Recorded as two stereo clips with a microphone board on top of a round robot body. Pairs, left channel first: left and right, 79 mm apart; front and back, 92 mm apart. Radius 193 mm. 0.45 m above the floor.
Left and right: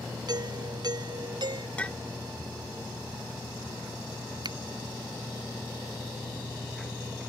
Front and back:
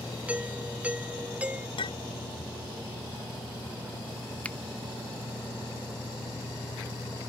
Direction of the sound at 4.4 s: 75° right.